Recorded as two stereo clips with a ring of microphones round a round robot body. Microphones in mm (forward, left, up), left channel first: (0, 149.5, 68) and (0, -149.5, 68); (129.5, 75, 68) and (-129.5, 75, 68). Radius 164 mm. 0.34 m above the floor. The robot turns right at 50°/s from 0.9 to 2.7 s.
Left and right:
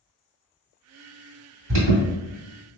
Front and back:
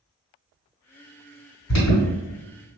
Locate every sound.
1.7 s an alarm: 50° right, 1.8 m; by 2.0 s 35° right, 1.8 m